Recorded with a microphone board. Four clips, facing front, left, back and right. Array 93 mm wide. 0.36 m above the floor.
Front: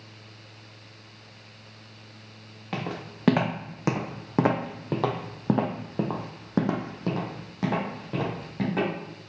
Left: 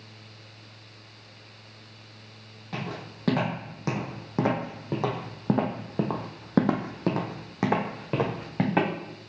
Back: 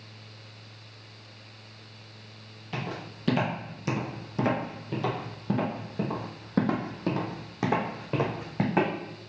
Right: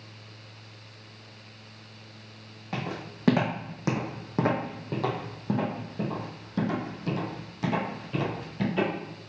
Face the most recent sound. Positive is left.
turn(degrees=110)